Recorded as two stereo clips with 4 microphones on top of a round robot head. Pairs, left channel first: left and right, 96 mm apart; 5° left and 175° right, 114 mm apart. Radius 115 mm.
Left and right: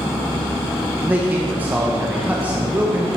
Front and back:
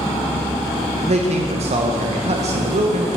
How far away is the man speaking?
About 0.7 m.